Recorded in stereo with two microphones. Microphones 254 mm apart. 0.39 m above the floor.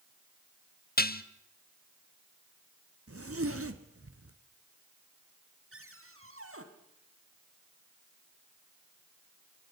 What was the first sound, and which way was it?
Dishes clattering, 35° left (ahead or behind).